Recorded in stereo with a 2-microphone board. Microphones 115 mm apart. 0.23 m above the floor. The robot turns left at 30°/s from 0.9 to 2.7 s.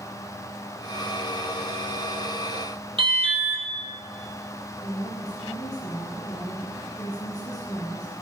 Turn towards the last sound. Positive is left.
turn(degrees=35)  # may be behind; listen again after turning